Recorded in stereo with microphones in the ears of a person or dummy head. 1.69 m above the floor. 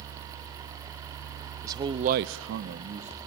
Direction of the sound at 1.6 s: 15° right (ahead or behind).